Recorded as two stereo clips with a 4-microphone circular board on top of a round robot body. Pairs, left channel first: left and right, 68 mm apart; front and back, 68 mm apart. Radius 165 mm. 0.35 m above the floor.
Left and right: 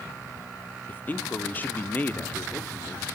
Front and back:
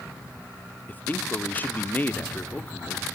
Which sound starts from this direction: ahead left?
A man speaking, at 0.9 s.